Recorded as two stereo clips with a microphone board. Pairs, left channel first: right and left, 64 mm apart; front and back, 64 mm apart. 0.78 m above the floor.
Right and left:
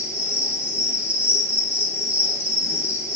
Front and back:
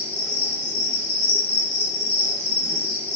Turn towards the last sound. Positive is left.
turn(degrees=140)